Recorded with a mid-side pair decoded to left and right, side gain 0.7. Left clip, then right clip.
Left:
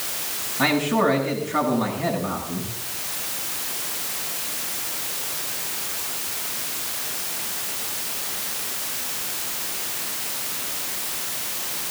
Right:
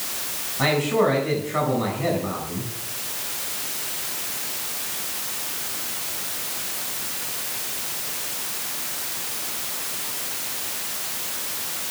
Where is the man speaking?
5° left, 8 m.